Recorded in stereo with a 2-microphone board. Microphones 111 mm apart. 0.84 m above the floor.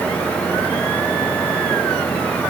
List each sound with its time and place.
Only background noise.